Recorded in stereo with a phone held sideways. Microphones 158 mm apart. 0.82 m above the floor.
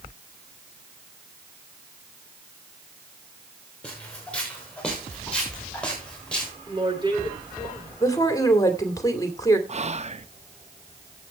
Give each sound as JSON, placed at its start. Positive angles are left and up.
{"t": 3.8, "sound": "footsteps", "side_deg": 10, "distance_m": 4.5}
{"t": 6.7, "sound": "a woman speaking", "side_deg": -30, "distance_m": 9.5}
{"t": 8.0, "sound": "a woman speaking", "side_deg": 20, "distance_m": 2.0}
{"t": 9.7, "sound": "whispering", "side_deg": -45, "distance_m": 0.6}